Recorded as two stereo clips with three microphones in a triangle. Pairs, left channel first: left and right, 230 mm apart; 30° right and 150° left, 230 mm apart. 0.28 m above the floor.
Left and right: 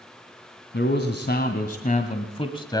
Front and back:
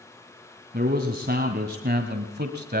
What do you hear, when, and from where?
0.7 s a man speaking: 110° left, 2 m; by 2.8 s 155° left, 1.4 m